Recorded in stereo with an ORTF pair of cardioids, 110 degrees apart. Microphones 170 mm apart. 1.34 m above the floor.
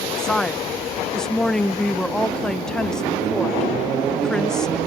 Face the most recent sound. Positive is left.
turn(degrees=5)